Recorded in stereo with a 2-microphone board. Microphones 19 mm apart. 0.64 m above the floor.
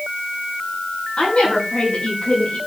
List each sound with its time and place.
1.2 s a woman speaking: 80° left, 8 m